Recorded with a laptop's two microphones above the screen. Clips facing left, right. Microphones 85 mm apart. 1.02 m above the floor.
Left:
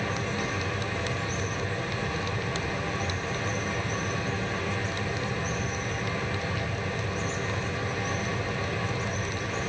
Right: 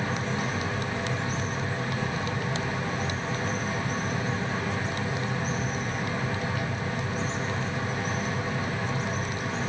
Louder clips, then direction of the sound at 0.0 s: Right 1 dB; 30° right (ahead or behind).